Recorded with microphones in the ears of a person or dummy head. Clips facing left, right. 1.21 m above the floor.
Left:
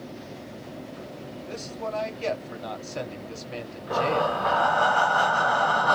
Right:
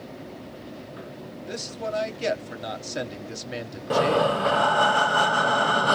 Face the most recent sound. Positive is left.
turn(degrees=-30)  # may be behind; listen again after turning